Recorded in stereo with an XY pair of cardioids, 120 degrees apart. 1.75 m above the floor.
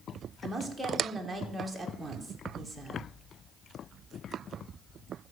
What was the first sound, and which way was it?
A woman speaking, 5° right.